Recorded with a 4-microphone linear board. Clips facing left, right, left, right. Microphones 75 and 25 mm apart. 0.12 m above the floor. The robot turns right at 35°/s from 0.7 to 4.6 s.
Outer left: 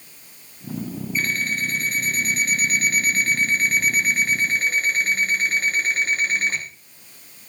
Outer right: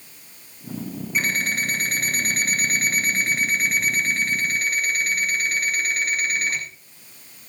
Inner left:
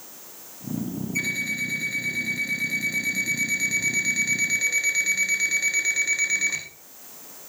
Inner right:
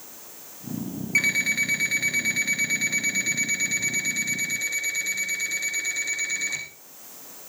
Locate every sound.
1.1 s an alarm clock: 95° right, 5 m; by 6.6 s 25° left, 5 m